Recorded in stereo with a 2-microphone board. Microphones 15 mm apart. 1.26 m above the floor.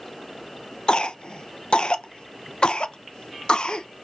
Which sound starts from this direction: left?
A cough, at 0.9 s.